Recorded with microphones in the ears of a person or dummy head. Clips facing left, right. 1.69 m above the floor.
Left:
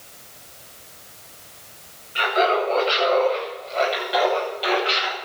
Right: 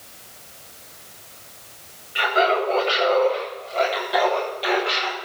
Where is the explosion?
I don't hear an explosion.